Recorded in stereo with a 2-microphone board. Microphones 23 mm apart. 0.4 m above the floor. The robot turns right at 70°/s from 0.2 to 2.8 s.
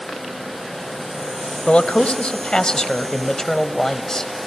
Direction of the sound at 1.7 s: 75° left.